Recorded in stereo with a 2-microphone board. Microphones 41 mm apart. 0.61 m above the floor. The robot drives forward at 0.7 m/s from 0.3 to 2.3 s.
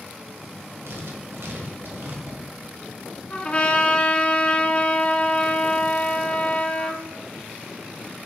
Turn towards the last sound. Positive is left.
turn(degrees=30)  # may be behind; listen again after turning